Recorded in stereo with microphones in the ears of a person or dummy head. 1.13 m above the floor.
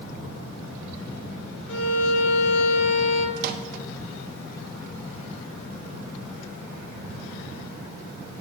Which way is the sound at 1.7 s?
75° left (ahead or behind).